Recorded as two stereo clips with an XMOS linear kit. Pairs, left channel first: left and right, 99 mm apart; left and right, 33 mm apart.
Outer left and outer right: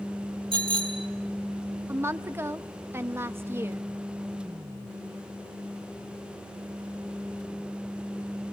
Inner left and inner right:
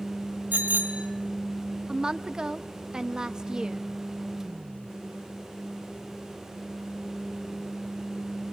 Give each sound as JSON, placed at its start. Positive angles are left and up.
{"t": 0.5, "sound": "a bicycle bell", "side_deg": -60, "distance_m": 3.0}
{"t": 1.9, "sound": "a woman speaking", "side_deg": -25, "distance_m": 0.5}